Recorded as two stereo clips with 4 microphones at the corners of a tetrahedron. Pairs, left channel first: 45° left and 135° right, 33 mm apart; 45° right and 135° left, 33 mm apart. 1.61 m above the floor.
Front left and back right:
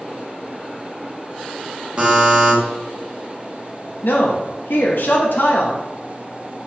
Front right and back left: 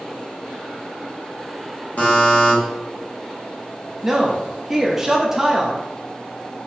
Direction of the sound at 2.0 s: 80° right.